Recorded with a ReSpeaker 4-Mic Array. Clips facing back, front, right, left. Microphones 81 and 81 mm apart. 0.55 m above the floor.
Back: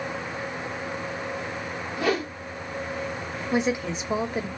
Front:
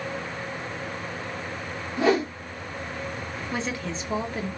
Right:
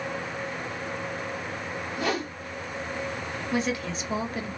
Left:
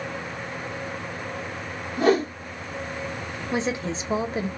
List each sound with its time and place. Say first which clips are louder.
2.0 s a whoosh: front 4 dB, left 10 dB; 55° left, 0.9 m
3.5 s a woman speaking: back 7 dB, left 2 dB; 120° left, 0.8 m